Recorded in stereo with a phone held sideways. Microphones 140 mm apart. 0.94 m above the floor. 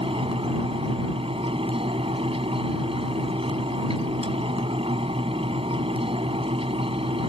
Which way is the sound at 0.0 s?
40° right (ahead or behind).